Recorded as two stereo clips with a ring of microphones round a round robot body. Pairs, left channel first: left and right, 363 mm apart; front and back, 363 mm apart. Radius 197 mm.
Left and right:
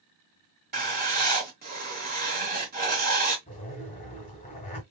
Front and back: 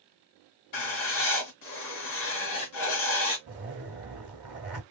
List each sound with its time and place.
0.7 s writing: 30° right, 1.7 m
3.5 s a zipper: 150° left, 1.1 m